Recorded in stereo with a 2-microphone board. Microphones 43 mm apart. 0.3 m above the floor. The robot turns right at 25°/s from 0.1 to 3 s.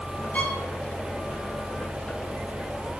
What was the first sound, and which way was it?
A violin, 35° left (ahead or behind).